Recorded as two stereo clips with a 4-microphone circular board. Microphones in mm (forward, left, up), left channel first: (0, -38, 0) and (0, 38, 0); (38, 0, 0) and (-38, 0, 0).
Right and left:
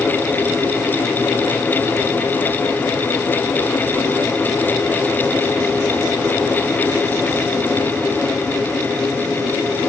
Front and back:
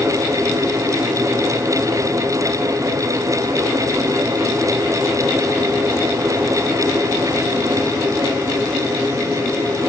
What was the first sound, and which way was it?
Only background noise.